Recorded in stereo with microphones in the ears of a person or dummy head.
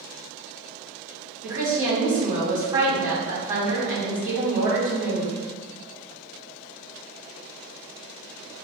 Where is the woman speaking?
15° right (ahead or behind), 1.9 m.